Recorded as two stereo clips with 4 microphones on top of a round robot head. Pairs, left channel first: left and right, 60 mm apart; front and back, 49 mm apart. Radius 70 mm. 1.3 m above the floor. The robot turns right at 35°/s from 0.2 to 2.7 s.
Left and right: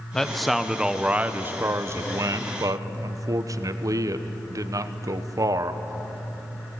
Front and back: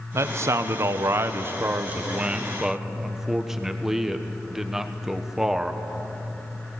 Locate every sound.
0.1 s a man speaking: 170° left, 1.1 m; by 5.8 s 100° right, 1.1 m